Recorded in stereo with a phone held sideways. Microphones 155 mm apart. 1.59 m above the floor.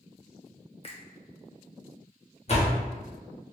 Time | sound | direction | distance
0.8 | a finger snap | 35° left (ahead or behind) | 0.6 m
2.5 | a door slam | 45° left (ahead or behind) | 0.8 m